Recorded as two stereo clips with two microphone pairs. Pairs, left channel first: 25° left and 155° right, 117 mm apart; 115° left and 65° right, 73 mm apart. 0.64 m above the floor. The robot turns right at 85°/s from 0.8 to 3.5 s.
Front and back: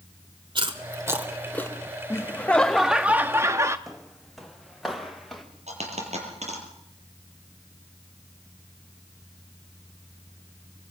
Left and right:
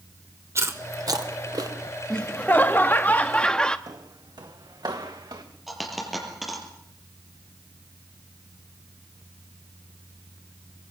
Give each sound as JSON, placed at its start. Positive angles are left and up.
{"t": 0.6, "sound": "chewing", "azimuth_deg": -115, "distance_m": 1.8}
{"t": 2.1, "sound": "laughter", "azimuth_deg": 55, "distance_m": 0.7}
{"t": 3.9, "sound": "footsteps", "azimuth_deg": -65, "distance_m": 1.5}
{"t": 5.7, "sound": "a dropped coin", "azimuth_deg": -155, "distance_m": 5.5}